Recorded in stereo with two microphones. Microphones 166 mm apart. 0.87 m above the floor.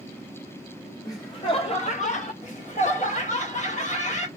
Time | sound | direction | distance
1.1 | laughter | 20° left (ahead or behind) | 0.9 m
2.4 | laughter | 45° left (ahead or behind) | 1.6 m